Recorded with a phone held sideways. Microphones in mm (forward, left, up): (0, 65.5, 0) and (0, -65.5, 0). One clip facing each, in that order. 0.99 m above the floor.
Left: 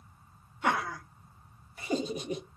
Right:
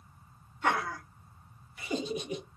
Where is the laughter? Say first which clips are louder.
Even; 10° left (ahead or behind), 1.1 m; by 2.4 s 40° left (ahead or behind), 1.1 m.